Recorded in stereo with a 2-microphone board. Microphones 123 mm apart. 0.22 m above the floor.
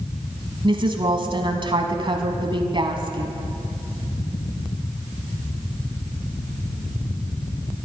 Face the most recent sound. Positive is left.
turn(degrees=-45)  # may be behind; listen again after turning